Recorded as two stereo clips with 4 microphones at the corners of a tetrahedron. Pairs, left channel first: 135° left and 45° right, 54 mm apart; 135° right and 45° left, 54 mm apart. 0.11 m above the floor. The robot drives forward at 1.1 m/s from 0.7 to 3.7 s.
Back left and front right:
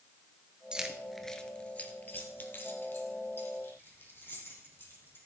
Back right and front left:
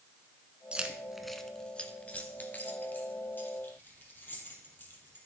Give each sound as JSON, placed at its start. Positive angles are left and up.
{"t": 0.7, "sound": "keys jangling", "azimuth_deg": 10, "distance_m": 1.1}